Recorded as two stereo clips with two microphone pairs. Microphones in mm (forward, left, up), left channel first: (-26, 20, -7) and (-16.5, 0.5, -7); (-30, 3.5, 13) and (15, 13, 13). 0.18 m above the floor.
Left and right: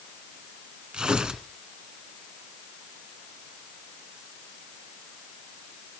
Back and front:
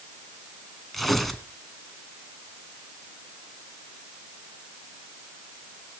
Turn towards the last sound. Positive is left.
turn(degrees=-80)